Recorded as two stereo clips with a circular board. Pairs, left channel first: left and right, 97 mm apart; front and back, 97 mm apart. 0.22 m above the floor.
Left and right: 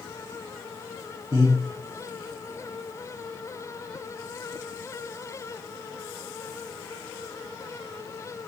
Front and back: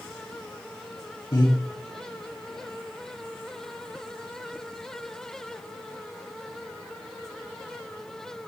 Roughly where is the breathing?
Ahead right.